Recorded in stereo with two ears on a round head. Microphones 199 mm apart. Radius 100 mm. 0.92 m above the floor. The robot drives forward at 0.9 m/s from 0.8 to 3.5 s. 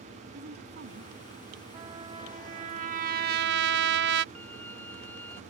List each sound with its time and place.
0.3 s a woman speaking: 50° right (ahead or behind); by 1.6 s 45° right (ahead or behind)
1.7 s a trumpet: 20° right (ahead or behind); by 4.2 s 50° right (ahead or behind)
4.3 s a violin: 10° left (ahead or behind)